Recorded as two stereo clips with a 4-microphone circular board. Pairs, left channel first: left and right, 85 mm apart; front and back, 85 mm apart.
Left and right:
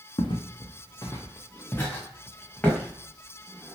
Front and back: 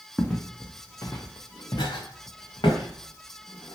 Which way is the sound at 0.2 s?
80° left.